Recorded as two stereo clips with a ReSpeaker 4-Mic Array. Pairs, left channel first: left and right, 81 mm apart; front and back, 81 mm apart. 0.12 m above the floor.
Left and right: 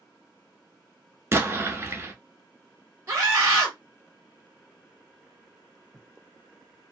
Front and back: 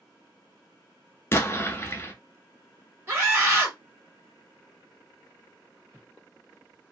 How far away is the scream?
About 2.5 m.